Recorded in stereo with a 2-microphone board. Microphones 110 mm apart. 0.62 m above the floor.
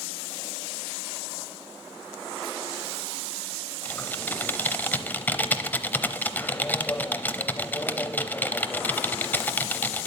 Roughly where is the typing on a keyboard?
Centre.